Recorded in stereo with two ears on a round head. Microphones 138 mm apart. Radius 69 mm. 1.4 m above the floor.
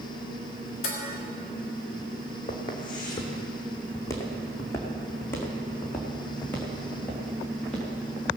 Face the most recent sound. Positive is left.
turn(degrees=5)  # may be behind; listen again after turning